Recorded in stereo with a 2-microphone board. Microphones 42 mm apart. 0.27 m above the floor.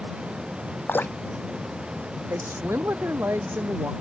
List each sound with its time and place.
0.9 s dripping: 50° left (ahead or behind)
2.3 s a woman speaking: 70° right (ahead or behind)